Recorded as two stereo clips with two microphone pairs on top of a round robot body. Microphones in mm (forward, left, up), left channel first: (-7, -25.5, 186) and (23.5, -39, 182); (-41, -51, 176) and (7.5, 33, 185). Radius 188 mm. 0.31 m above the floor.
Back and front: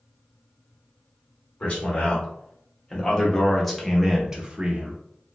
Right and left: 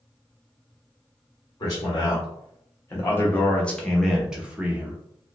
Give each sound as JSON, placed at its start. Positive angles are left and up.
{"t": 1.6, "sound": "a man speaking", "azimuth_deg": -160, "distance_m": 1.5}